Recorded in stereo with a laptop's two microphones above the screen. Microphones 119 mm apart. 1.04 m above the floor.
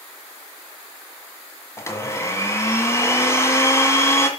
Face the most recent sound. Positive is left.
turn(degrees=25)  # may be behind; listen again after turning